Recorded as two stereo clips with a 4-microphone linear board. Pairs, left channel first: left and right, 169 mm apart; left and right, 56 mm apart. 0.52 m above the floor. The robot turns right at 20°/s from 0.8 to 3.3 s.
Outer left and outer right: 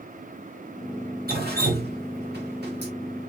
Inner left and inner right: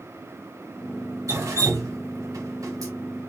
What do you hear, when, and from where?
1.3 s dripping: 65° right (ahead or behind), 0.9 m; by 2.9 s 75° right (ahead or behind), 0.9 m